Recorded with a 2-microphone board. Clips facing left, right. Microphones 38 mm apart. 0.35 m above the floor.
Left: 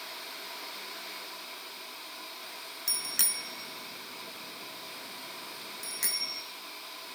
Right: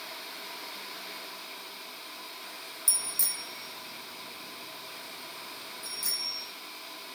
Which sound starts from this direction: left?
A bicycle bell, at 2.9 s.